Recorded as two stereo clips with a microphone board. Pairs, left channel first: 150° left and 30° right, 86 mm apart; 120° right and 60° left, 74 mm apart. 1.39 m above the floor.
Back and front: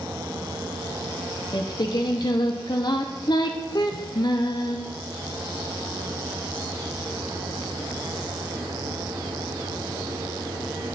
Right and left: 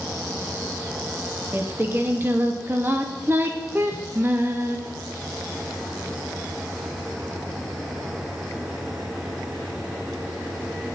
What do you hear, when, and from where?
1.5 s singing: 120° left, 1.1 m